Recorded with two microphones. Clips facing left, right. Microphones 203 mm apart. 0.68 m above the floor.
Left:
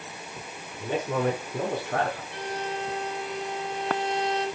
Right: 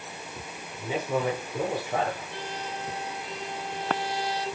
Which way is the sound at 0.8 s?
60° left (ahead or behind).